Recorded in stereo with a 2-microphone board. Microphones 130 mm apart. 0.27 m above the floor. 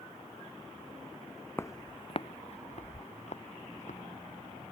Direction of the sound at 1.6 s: 20° left (ahead or behind).